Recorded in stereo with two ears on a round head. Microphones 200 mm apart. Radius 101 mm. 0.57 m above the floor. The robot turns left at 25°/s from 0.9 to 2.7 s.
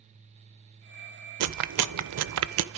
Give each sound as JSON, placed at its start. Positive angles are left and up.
{"t": 1.4, "sound": "chewing", "side_deg": -75, "distance_m": 0.6}